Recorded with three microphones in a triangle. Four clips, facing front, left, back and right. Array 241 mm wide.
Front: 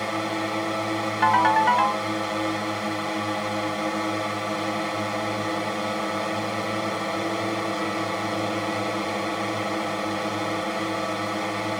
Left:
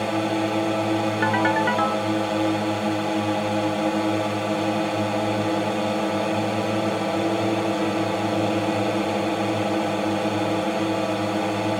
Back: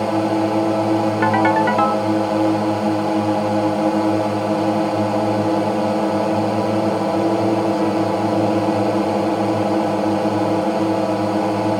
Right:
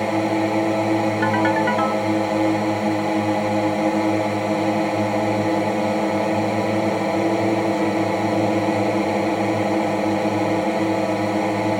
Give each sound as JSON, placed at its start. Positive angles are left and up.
{"t": 0.0, "sound": "a drone", "azimuth_deg": -155}
{"t": 1.2, "sound": "a ringtone", "azimuth_deg": 180}